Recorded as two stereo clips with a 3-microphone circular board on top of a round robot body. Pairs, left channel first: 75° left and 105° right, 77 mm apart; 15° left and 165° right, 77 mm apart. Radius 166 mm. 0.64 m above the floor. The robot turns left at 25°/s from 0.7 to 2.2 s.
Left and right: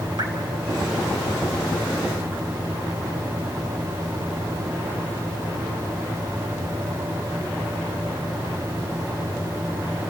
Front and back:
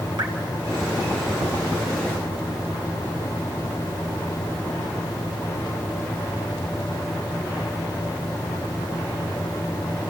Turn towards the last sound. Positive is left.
turn(degrees=-175)